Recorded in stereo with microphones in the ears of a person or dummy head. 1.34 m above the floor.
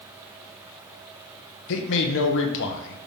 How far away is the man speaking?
About 0.7 m.